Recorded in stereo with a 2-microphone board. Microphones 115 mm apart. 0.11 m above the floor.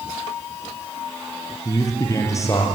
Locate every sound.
1.6 s a man speaking: 30° left (ahead or behind), 3.5 m